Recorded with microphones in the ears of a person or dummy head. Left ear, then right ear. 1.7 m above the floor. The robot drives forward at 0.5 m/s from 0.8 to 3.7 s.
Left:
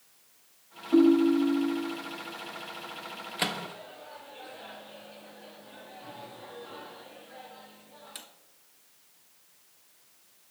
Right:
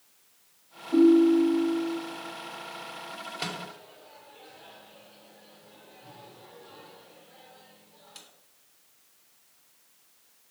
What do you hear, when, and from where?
0.9 s a ringtone: 20° left (ahead or behind), 1.9 m
3.4 s a microwave: 45° left (ahead or behind), 0.7 m